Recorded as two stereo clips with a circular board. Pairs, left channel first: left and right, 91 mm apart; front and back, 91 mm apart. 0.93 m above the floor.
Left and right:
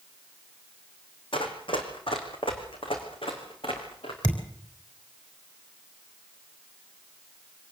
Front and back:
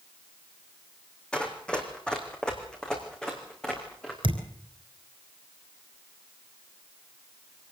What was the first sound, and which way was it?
Running footsteps, 75° left.